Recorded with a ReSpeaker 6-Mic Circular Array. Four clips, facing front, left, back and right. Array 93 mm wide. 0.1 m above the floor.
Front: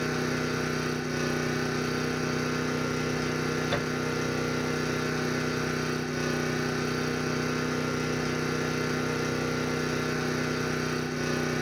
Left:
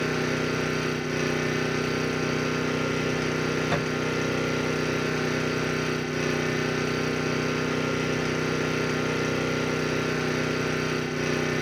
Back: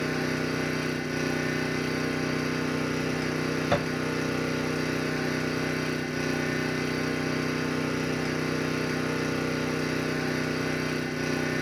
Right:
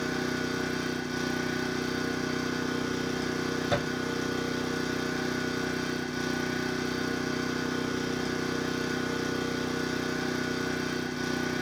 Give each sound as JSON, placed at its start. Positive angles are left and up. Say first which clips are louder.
{"t": 0.0, "sound": "an engine running", "louder": "left 4 dB, back 1 dB", "azimuth_deg": 105, "distance_m": 0.8}
{"t": 3.7, "sound": "a thud", "louder": "left 2 dB, back 3 dB", "azimuth_deg": -170, "distance_m": 2.0}